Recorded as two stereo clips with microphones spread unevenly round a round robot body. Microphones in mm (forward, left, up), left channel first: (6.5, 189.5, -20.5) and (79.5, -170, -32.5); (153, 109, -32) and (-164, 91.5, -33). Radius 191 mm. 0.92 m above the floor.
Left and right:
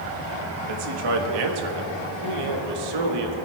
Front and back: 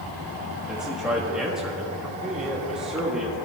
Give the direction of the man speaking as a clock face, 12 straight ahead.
3 o'clock.